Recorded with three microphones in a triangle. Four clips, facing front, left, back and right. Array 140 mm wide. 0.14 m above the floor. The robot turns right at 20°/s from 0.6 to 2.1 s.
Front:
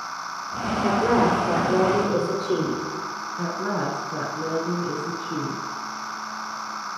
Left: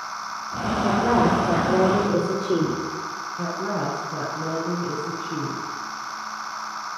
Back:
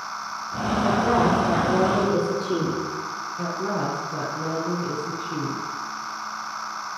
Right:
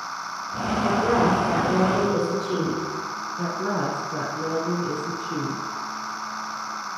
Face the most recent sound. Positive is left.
turn(degrees=-15)